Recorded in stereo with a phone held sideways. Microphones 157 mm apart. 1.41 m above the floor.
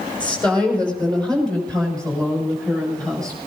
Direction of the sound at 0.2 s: 5° left (ahead or behind).